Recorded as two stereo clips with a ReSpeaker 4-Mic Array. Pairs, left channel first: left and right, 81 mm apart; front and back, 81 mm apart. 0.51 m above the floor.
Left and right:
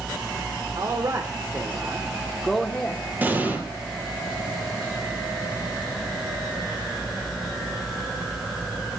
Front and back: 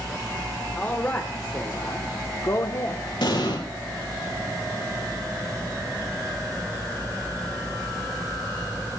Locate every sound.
0.8 s a man speaking: 65° right, 2.0 m; by 3.0 s 30° left, 1.5 m
3.2 s an explosion: 20° right, 4 m